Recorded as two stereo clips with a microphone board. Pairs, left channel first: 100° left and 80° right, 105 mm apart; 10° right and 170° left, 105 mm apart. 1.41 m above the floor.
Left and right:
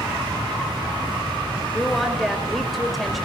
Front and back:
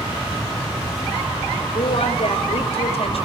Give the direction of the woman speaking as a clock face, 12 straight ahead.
12 o'clock.